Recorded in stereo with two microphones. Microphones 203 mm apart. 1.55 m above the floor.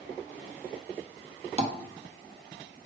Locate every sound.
1.6 s tapping: 30° right (ahead or behind), 0.5 m